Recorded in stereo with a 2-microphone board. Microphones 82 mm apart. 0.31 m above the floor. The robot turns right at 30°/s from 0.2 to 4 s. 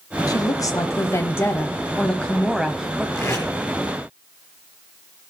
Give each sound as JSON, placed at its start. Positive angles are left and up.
{"t": 0.3, "sound": "a woman speaking", "azimuth_deg": 110, "distance_m": 1.3}
{"t": 3.1, "sound": "tape being pulled", "side_deg": 30, "distance_m": 5.0}